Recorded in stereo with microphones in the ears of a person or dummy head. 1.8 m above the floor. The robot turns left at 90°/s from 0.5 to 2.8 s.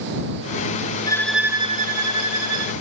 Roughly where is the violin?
Ahead left.